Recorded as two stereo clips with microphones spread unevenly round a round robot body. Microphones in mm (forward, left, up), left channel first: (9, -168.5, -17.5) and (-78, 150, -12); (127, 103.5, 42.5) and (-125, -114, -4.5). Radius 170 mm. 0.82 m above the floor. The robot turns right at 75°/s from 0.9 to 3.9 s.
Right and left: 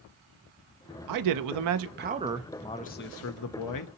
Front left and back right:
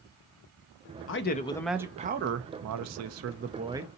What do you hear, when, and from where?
1.1 s a man speaking: 90° left, 0.6 m; by 3.9 s 60° right, 0.6 m